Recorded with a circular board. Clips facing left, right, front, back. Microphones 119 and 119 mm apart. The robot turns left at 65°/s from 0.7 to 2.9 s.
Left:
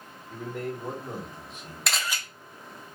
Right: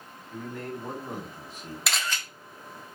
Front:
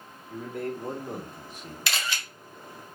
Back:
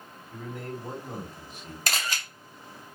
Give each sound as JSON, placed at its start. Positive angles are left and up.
{"t": 0.3, "sound": "a man speaking", "azimuth_deg": 15, "distance_m": 1.1}
{"t": 1.9, "sound": "a camera shutter", "azimuth_deg": -175, "distance_m": 0.6}